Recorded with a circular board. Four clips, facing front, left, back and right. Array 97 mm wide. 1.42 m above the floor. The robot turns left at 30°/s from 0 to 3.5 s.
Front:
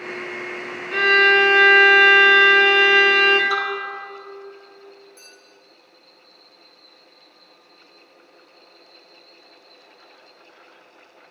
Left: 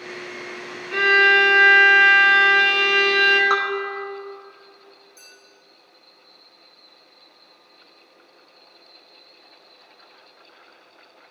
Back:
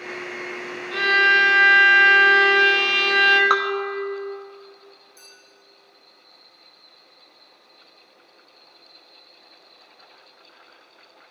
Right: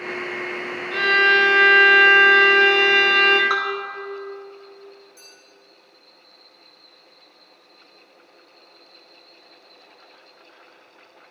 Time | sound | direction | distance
0.9 | a violin | 30° left | 1.0 m
3.5 | dripping | 175° left | 1.1 m
5.2 | a clink | 20° right | 4.5 m